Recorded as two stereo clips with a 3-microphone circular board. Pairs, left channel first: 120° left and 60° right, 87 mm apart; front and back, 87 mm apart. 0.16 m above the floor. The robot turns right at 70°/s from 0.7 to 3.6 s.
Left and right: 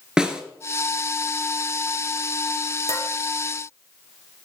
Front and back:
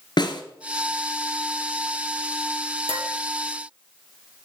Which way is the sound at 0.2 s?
20° left.